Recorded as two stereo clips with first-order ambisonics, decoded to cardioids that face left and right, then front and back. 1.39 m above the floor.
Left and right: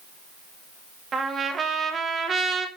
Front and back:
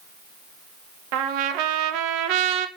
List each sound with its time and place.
1.1 s a trumpet: 160° right, 1.1 m